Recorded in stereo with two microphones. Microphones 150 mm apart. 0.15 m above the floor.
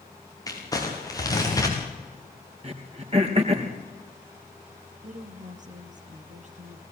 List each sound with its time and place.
0.5 s crumpling: 20° left (ahead or behind), 5.5 m
2.6 s throat clearing: 40° right (ahead or behind), 3.5 m
5.0 s a woman speaking: 50° right (ahead or behind), 3 m